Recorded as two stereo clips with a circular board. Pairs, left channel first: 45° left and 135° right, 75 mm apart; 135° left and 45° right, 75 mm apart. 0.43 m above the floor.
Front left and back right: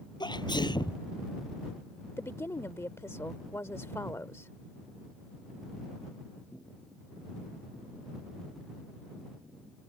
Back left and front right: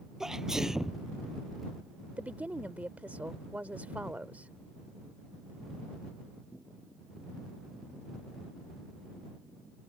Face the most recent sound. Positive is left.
turn(degrees=15)